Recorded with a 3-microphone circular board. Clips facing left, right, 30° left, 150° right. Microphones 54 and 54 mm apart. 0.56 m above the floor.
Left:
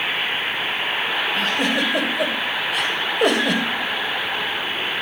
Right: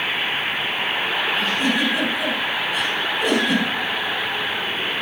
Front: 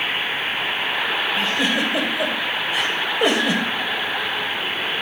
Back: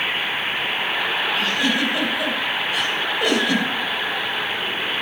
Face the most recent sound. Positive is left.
turn(degrees=95)